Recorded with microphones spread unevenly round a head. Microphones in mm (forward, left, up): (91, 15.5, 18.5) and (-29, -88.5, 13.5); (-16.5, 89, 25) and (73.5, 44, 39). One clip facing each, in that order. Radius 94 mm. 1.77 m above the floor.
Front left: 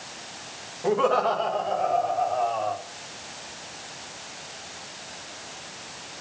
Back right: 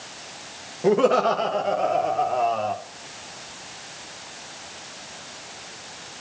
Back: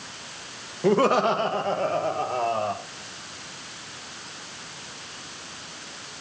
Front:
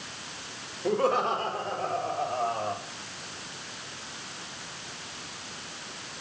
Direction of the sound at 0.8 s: 160° left.